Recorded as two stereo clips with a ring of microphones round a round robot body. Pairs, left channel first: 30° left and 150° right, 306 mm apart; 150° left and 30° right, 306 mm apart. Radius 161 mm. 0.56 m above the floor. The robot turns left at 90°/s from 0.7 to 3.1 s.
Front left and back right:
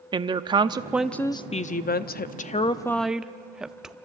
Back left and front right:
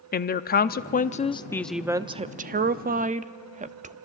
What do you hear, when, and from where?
0.1 s a woman speaking: 150° left, 0.7 m; by 4.0 s 65° right, 0.7 m